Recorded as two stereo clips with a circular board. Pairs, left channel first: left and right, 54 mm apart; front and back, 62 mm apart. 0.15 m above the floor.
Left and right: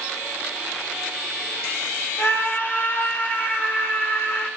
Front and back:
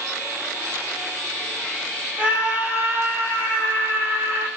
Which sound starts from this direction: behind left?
A scream, at 2.2 s.